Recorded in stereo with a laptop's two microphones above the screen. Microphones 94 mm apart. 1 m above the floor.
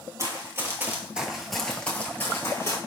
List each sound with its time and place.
0.2 s running footsteps: 40° right (ahead or behind), 1.2 m; by 2.8 s 40° left (ahead or behind), 1.2 m